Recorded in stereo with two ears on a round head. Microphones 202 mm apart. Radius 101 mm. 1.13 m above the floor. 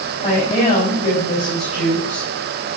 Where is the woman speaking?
30° left (ahead or behind), 5 m.